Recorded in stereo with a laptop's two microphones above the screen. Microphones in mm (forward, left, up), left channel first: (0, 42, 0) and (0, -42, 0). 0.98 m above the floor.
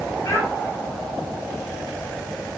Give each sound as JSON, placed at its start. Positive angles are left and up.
{"t": 0.2, "sound": "a child speaking", "side_deg": 45, "distance_m": 3.5}